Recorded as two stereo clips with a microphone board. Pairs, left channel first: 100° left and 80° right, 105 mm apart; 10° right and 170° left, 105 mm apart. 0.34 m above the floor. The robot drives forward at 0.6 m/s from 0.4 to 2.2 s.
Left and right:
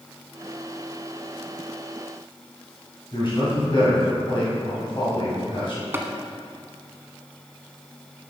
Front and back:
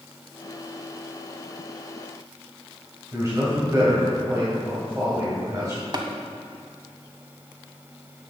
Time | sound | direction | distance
3.1 | a man speaking | 115° left | 2.5 m
5.9 | tapping | 145° right | 0.9 m